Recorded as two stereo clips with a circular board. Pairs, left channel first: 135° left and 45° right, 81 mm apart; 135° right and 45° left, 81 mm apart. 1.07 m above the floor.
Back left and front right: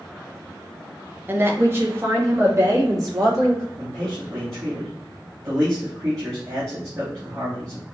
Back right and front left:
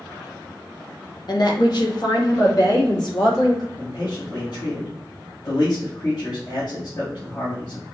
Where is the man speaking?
95° right, 2 m.